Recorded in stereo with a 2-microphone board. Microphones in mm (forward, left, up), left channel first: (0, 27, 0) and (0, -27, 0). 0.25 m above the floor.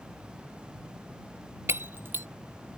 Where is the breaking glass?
45° right (ahead or behind).